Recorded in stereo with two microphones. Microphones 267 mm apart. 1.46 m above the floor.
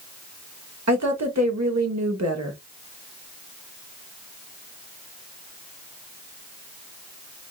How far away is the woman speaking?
About 1.1 m.